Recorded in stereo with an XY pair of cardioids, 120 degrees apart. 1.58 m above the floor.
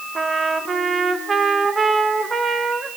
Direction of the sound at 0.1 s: 30° right.